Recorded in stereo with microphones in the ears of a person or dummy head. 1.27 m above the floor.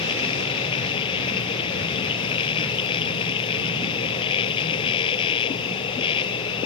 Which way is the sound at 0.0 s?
30° left (ahead or behind).